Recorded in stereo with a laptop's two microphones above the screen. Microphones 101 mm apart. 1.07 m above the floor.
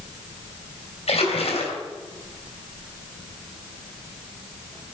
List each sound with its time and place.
1.1 s a splash: 80° left, 2.5 m